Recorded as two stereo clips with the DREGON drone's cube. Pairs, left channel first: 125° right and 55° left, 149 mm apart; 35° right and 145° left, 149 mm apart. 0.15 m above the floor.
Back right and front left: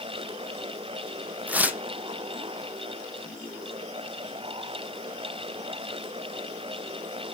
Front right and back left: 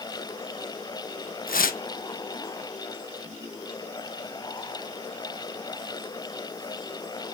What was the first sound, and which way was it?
Tearing paper, 25° right.